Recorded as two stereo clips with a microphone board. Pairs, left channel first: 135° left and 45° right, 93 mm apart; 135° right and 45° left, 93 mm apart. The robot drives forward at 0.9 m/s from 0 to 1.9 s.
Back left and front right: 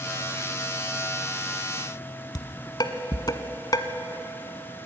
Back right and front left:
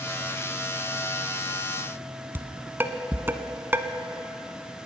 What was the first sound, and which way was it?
Dishes clattering, 105° left.